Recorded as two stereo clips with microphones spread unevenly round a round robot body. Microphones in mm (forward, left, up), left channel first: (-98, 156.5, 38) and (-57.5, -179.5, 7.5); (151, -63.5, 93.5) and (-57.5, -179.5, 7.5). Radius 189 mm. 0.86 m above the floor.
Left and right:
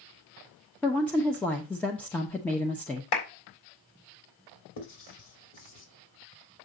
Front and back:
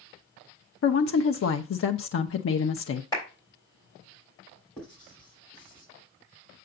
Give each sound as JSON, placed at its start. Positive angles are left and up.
{"t": 0.8, "sound": "a woman speaking", "azimuth_deg": 5, "distance_m": 0.7}
{"t": 3.1, "sound": "a clap", "azimuth_deg": 110, "distance_m": 3.5}
{"t": 4.8, "sound": "writing", "azimuth_deg": 120, "distance_m": 3.0}